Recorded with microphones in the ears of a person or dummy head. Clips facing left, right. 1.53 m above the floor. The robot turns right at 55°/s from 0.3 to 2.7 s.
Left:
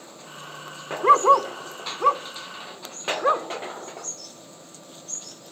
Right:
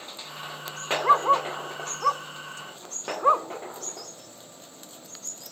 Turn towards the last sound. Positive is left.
turn(degrees=20)  # may be behind; listen again after turning